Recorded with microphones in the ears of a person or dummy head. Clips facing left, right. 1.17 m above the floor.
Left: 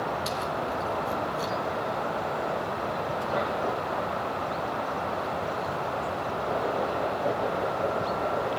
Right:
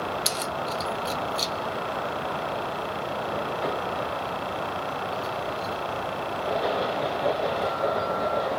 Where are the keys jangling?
60° right (ahead or behind), 0.7 m; by 5.8 s 65° right (ahead or behind), 5 m.